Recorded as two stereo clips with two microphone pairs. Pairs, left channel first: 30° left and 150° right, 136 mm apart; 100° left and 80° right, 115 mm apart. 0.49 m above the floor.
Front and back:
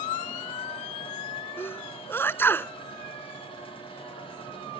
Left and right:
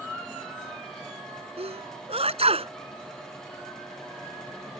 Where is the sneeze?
45° right.